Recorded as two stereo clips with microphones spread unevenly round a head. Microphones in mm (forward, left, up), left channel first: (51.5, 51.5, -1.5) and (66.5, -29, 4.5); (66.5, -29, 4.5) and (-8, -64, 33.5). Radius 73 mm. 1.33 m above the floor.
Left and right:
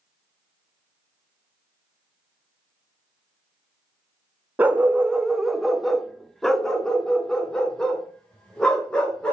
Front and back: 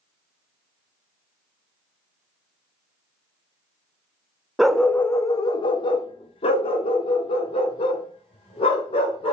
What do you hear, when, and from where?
4.6 s a dog barking: 120° right, 0.8 m; by 9.3 s 20° left, 3.5 m